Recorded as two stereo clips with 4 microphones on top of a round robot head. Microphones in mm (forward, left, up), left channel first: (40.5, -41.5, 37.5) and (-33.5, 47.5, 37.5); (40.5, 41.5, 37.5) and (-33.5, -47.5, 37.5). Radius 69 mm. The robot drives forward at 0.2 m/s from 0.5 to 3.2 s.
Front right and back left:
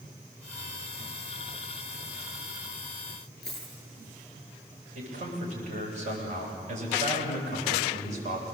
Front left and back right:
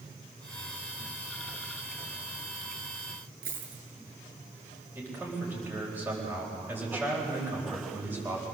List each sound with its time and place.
3.4 s a dropped coin: 135° right, 7 m
5.0 s a man speaking: 155° left, 8 m